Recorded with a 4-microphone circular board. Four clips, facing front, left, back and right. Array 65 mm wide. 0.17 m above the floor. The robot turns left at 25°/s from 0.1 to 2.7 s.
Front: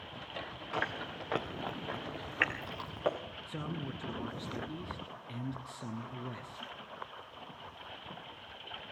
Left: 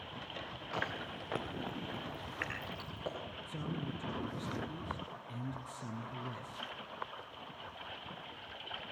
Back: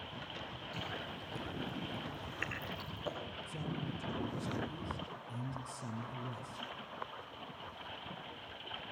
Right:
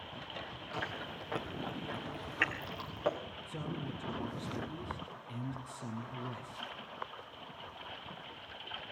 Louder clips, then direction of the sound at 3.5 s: Even, front 3 dB; straight ahead.